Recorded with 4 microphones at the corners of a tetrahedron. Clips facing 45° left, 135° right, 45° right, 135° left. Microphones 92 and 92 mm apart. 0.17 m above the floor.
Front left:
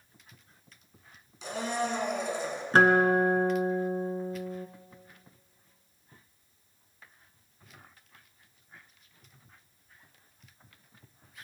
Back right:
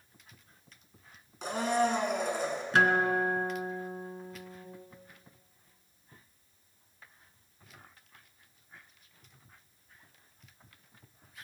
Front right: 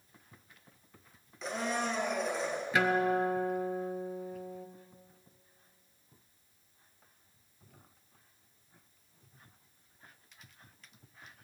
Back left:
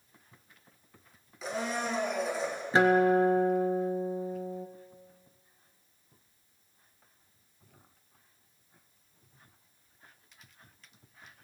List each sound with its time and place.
1.4 s a blender: 140° right, 2.5 m
2.7 s a guitar: 85° left, 0.8 m